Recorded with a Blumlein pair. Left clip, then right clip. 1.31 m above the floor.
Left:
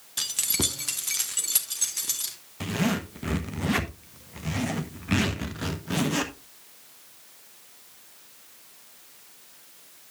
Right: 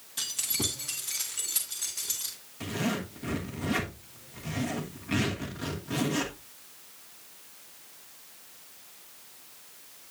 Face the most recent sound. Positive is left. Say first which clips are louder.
# left 4 dB
turn(degrees=25)